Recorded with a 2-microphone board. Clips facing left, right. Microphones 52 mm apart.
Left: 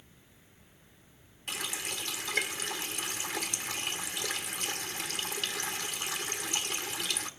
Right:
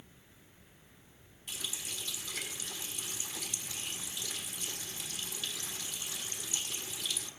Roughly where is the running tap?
Left.